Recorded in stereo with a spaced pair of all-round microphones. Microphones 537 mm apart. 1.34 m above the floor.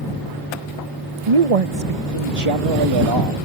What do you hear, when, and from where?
1.3 s a man speaking: 70° right (ahead or behind); by 3.4 s 45° right (ahead or behind)